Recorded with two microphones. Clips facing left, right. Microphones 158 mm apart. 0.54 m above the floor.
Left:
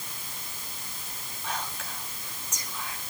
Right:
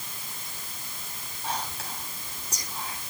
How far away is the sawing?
I don't hear sawing.